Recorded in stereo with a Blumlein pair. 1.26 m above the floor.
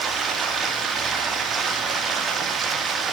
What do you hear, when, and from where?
0.0 s running water: 20° right, 2.5 m